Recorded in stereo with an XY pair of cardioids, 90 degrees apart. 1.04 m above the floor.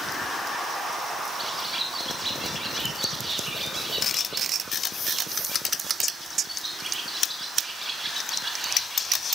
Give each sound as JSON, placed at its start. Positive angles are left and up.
{"t": 1.4, "sound": "a bird", "azimuth_deg": -25, "distance_m": 1.8}